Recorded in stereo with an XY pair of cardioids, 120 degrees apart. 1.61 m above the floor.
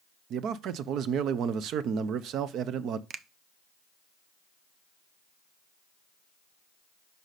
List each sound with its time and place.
0.3 s a man speaking: 65° right, 0.6 m
3.1 s a finger snap: 50° right, 0.5 m